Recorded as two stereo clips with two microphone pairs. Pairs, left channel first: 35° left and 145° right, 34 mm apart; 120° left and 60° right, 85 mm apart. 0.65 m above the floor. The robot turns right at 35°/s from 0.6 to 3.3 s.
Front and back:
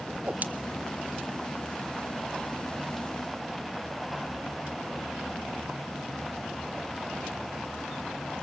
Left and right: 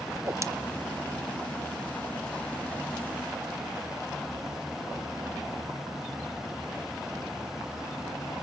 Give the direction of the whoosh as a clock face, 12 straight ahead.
4 o'clock.